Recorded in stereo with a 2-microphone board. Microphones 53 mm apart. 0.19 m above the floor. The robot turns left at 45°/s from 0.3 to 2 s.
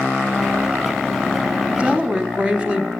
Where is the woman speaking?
20° right (ahead or behind), 1.2 m.